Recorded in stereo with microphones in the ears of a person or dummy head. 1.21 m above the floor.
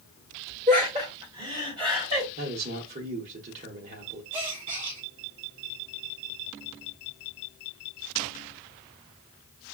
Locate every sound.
0.7 s laughter: 35° right (ahead or behind), 2 m; by 2.3 s 20° right (ahead or behind), 3 m
2.4 s a man speaking: 40° right (ahead or behind), 0.8 m
4.3 s a gasp: 25° right (ahead or behind), 0.9 m